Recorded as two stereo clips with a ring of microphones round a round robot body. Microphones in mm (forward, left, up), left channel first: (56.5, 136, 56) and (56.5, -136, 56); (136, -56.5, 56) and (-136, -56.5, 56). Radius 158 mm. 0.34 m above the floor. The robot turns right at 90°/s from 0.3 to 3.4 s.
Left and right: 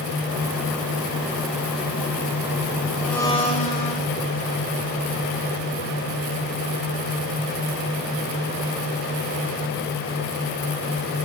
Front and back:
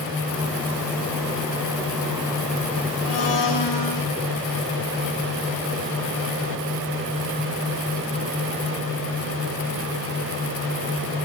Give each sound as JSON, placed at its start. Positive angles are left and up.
{"t": 3.0, "sound": "a blender", "azimuth_deg": -5, "distance_m": 8.0}